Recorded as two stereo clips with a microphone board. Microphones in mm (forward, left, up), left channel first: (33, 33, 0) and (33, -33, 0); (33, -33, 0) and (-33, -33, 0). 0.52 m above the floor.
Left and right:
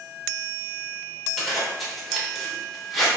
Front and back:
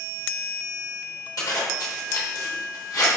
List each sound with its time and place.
1.4 s a zipper: straight ahead, 1.0 m